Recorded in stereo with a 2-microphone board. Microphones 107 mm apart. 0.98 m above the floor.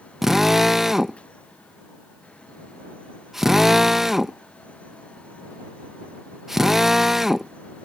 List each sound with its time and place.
0.2 s a drill: 5° right (ahead or behind)